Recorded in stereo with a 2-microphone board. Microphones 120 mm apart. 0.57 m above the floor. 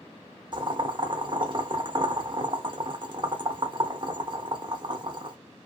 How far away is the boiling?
About 0.6 m.